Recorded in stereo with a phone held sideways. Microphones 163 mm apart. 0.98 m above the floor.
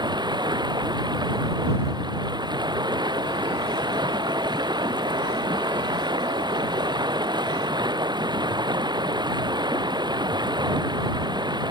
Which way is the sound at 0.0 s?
25° right (ahead or behind).